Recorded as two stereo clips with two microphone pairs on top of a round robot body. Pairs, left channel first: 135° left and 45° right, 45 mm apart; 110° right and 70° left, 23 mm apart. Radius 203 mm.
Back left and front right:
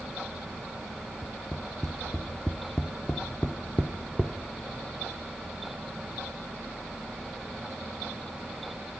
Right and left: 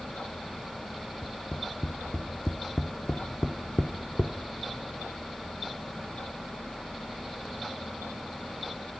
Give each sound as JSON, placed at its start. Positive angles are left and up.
{"t": 1.2, "sound": "tapping", "azimuth_deg": -150, "distance_m": 0.9}